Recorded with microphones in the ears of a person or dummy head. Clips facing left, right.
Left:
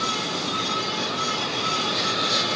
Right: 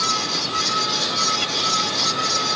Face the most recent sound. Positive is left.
turn(degrees=-75)  # may be behind; listen again after turning